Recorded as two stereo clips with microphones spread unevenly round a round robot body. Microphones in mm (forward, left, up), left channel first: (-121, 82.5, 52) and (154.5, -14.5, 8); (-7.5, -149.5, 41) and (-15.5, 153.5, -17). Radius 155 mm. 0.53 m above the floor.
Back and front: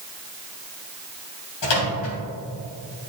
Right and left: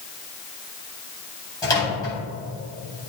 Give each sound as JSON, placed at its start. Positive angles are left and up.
{"t": 1.6, "sound": "a microwave", "azimuth_deg": -170, "distance_m": 3.5}